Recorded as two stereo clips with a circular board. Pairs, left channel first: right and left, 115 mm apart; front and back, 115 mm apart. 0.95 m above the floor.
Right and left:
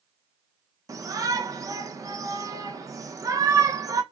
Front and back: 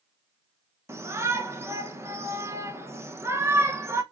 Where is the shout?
130° left, 0.7 m.